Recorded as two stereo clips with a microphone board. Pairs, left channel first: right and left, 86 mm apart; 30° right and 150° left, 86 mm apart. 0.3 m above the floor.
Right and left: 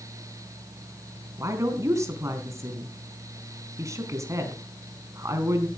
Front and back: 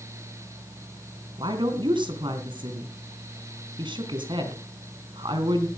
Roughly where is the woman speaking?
Behind left.